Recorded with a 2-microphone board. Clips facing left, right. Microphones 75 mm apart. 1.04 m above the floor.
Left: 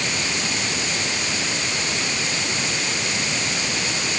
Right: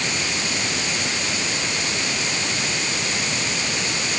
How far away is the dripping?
No dripping in this recording.